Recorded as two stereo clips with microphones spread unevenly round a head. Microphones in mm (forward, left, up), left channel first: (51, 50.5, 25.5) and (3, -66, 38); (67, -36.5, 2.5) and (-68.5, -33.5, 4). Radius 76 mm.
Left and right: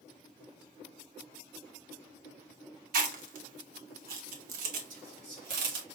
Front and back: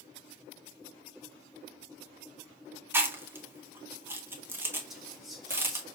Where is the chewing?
105° right, 1.1 m.